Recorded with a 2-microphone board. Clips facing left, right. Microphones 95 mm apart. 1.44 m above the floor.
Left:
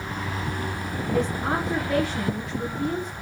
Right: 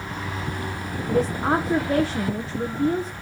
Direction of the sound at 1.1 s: 30° right (ahead or behind).